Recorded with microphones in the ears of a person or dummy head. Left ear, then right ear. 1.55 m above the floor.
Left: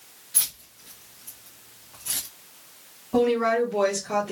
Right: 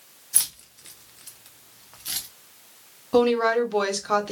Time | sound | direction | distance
0.3 | keys jangling | 30° right (ahead or behind) | 0.7 m
3.1 | a woman speaking | 45° right (ahead or behind) | 1.1 m